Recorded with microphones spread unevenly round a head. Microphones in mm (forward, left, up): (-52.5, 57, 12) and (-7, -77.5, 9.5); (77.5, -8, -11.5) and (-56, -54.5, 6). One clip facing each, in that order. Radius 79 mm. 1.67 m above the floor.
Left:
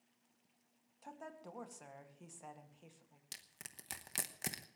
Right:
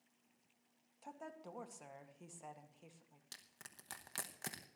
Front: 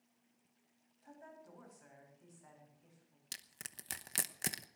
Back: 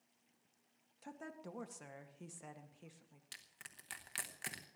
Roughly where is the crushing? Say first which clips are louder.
Left 4 dB, front 5 dB; ahead left.